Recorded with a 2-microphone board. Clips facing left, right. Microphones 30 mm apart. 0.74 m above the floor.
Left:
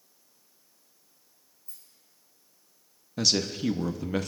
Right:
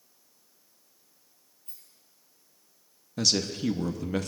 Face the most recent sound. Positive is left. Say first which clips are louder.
# left 1 dB
turn(degrees=10)  # may be behind; listen again after turning